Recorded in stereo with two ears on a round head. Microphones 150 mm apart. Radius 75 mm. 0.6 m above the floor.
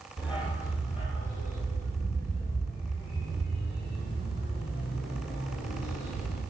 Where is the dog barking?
30° left (ahead or behind), 5.5 m; by 6.4 s 85° left, 7 m.